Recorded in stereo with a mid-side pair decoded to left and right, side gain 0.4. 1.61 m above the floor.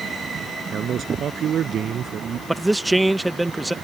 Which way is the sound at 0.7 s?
65° right.